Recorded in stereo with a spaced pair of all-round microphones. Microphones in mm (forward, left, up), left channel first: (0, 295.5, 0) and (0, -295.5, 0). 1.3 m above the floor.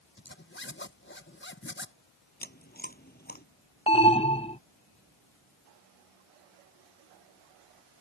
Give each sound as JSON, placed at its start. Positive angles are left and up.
{"t": 0.2, "sound": "a zipper", "side_deg": 20}
{"t": 2.4, "sound": "chewing", "side_deg": 15}
{"t": 3.9, "sound": "an alarm", "side_deg": 10}